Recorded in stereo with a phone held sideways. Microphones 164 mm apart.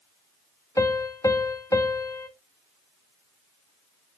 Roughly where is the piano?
Centre.